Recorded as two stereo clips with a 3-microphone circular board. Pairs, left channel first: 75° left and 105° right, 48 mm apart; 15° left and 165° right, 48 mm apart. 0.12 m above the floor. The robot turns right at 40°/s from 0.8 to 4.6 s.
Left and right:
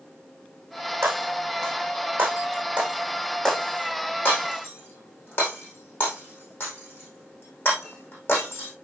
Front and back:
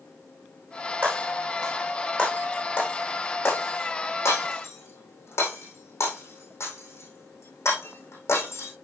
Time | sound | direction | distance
1.0 | breaking glass | 105° right | 4.5 m